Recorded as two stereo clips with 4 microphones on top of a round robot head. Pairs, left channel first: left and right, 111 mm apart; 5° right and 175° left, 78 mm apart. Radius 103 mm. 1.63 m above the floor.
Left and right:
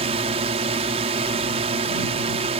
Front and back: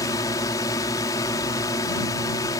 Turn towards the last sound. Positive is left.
turn(degrees=-55)